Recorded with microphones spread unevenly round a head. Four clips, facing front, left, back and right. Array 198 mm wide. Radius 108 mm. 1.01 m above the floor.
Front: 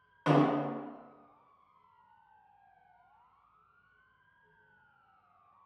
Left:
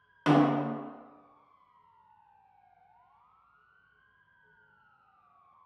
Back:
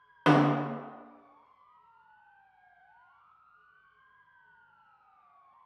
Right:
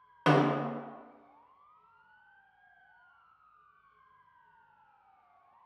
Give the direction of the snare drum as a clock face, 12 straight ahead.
5 o'clock.